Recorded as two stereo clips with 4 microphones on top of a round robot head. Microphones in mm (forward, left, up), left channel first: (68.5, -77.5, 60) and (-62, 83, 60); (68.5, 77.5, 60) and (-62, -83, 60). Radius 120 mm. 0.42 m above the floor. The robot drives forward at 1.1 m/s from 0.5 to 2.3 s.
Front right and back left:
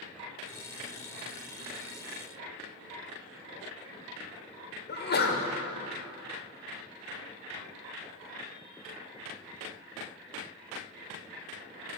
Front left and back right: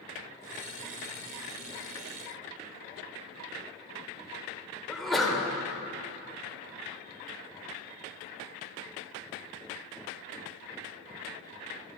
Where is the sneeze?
40° right, 2 m.